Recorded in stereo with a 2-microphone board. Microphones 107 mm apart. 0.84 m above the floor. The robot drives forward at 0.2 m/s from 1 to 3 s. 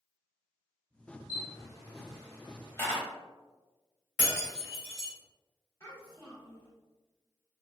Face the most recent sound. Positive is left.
turn(degrees=30)  # may be behind; listen again after turning